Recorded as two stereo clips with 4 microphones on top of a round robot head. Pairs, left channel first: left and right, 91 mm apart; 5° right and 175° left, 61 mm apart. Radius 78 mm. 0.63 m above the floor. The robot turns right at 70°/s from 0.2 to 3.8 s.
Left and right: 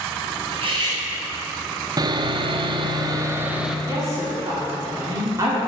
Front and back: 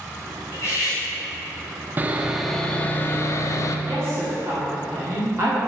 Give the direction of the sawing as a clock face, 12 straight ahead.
4 o'clock.